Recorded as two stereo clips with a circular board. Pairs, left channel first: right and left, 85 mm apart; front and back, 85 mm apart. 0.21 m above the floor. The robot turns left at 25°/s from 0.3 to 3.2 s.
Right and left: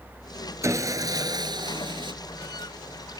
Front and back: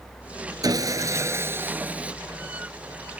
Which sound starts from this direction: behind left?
Sawing, at 0.6 s.